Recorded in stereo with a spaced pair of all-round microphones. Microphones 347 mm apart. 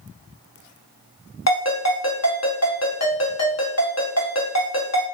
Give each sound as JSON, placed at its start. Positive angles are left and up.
{"t": 1.5, "sound": "a ringtone", "side_deg": 50, "distance_m": 0.8}